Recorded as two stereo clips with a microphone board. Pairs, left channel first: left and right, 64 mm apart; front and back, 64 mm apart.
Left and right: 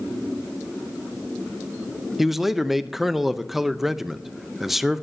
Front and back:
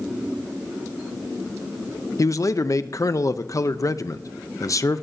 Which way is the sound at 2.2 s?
5° right.